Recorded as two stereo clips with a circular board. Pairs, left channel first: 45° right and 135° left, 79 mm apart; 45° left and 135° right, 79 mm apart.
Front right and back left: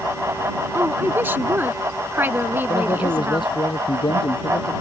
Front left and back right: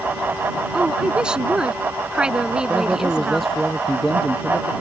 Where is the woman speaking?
160° left.